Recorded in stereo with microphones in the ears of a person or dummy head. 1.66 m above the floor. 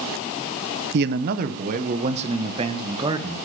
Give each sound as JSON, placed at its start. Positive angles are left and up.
{"t": 0.9, "sound": "a man speaking", "side_deg": -55, "distance_m": 1.3}